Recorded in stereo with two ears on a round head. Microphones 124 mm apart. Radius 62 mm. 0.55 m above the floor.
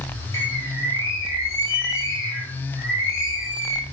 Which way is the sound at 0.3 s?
20° left (ahead or behind).